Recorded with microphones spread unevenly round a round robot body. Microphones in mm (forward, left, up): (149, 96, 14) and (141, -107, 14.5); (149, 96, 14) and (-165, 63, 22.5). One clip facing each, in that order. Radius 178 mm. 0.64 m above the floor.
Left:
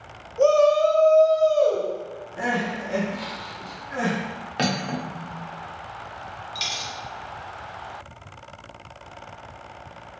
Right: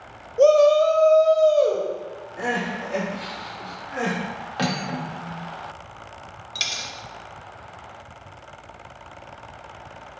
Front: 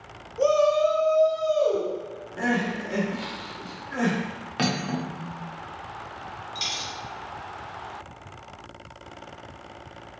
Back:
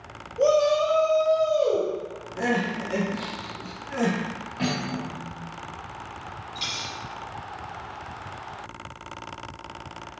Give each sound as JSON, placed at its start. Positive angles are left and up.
{"t": 0.4, "sound": "a shout", "azimuth_deg": -55, "distance_m": 0.7}
{"t": 2.4, "sound": "crying", "azimuth_deg": 100, "distance_m": 1.6}
{"t": 4.6, "sound": "cutlery clinking", "azimuth_deg": 20, "distance_m": 0.7}
{"t": 6.5, "sound": "a dropped coin", "azimuth_deg": -65, "distance_m": 0.7}